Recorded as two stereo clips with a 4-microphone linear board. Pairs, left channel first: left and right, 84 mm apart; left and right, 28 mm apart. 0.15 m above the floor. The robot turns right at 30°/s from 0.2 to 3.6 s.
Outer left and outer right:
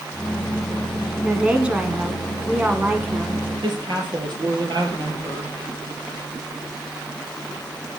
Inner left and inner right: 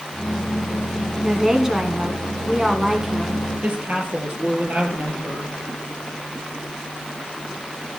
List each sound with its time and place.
1.2 s a woman speaking: 10° right (ahead or behind), 1.3 m; by 3.4 s 20° right (ahead or behind), 1.3 m
3.6 s a woman speaking: 60° right (ahead or behind), 3 m